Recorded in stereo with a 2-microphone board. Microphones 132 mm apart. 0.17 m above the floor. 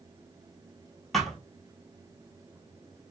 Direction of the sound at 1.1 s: Centre (ahead or behind).